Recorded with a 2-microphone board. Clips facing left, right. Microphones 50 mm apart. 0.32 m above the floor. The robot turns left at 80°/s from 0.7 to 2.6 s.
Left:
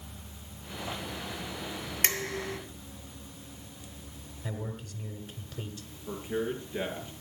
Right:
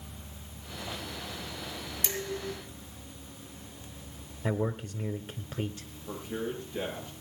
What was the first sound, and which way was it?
Dishes clattering, 110° left.